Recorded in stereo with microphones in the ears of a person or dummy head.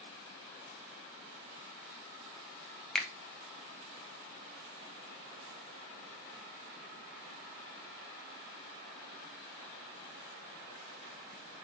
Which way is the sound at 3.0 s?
5° left (ahead or behind).